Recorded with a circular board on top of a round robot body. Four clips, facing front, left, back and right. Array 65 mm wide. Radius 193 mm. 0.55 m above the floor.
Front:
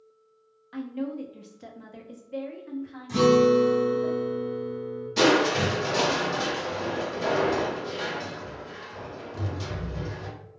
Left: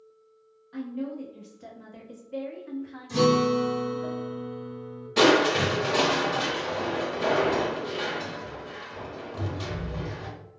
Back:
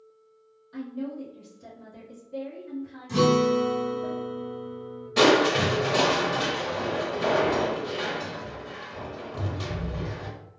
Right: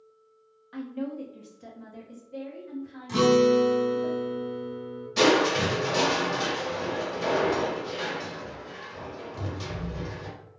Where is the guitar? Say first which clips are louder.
Right 2 dB, front 3 dB; 85° right, 1.4 m.